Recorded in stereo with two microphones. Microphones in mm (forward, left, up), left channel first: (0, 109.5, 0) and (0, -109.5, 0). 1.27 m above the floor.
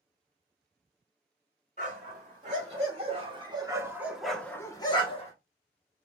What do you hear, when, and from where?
1.8 s a dog barking: 35° right (ahead or behind), 1.8 m; by 5.3 s 30° left (ahead or behind), 0.9 m